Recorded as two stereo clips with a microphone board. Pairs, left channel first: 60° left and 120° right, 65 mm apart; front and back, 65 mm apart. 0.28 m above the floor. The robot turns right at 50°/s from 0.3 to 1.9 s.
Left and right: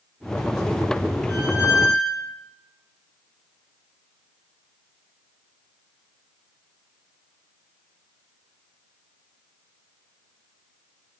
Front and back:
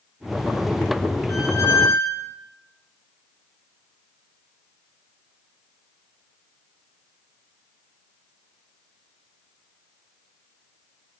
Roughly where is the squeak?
Ahead.